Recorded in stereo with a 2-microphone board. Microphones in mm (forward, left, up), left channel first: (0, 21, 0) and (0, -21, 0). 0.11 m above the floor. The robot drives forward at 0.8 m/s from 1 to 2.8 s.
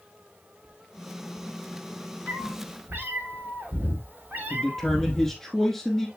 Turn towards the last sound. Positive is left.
turn(degrees=5)  # may be behind; listen again after turning